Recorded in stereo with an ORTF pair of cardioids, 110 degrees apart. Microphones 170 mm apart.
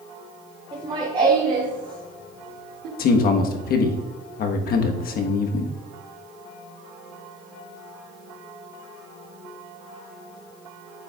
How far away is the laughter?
About 2 m.